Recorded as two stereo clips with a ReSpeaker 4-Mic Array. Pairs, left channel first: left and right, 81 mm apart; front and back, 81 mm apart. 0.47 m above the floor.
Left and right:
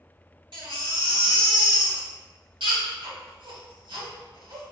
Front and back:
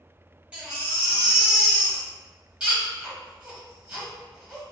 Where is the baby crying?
105° right, 1.4 m.